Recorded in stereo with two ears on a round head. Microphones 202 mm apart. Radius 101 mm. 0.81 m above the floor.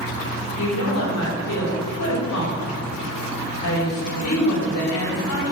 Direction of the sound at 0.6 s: 70° left (ahead or behind).